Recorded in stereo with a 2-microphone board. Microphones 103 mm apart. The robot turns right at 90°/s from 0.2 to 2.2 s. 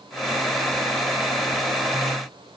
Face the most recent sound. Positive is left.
No sound to turn to.